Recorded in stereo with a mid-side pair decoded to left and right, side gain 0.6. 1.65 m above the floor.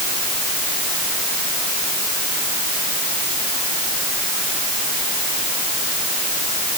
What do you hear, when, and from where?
Only background noise.